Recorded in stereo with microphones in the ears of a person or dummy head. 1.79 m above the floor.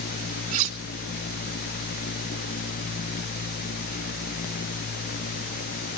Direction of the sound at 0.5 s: 45° right (ahead or behind).